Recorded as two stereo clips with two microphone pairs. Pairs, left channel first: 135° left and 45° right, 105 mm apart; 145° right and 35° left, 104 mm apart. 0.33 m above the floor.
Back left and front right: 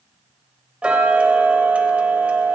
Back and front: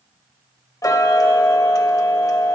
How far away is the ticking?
About 0.9 m.